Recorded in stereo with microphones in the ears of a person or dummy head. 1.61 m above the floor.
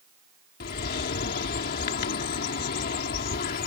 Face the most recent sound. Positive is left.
turn(degrees=55)  # may be behind; listen again after turning